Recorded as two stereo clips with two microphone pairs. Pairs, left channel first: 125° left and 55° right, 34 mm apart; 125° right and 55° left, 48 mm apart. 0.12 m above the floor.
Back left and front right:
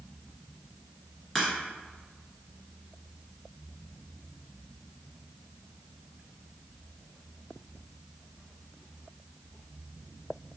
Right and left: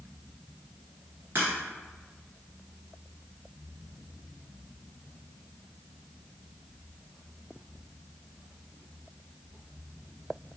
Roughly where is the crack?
Ahead left.